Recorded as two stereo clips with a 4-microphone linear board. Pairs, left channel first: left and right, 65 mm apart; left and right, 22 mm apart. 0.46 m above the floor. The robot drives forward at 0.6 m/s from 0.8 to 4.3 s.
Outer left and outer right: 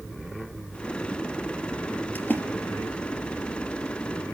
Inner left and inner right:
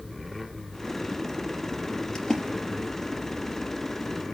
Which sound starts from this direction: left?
A splash, at 2.1 s.